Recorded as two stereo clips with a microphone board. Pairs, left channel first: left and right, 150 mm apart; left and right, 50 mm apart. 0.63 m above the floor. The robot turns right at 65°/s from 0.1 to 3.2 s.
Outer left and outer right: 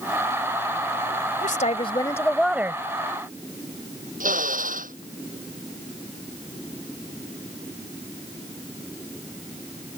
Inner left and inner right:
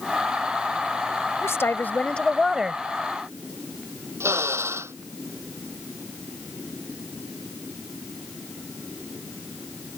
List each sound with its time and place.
1.4 s a woman speaking: 110° left; by 2.8 s 155° right
4.2 s a drill: 65° right (ahead or behind)